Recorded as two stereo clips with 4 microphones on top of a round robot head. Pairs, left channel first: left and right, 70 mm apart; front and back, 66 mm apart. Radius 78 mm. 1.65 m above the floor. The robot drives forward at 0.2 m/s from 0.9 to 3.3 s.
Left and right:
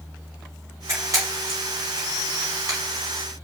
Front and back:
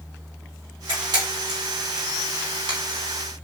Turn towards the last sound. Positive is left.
turn(degrees=-155)